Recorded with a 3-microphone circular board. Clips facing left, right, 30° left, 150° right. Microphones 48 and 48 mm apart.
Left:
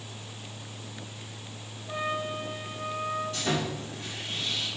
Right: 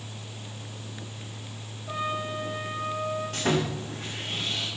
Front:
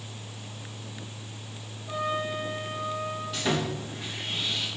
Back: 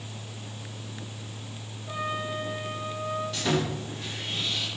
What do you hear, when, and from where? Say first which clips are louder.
1.9 s a trumpet: right 1 dB, front 2 dB; 70° right, 3.5 m
3.3 s sawing: right 3 dB, front 1 dB; 55° right, 4 m